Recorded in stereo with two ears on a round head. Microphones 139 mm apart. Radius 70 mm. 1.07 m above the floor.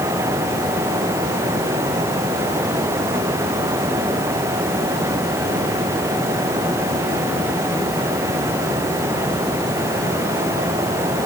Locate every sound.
Only background noise.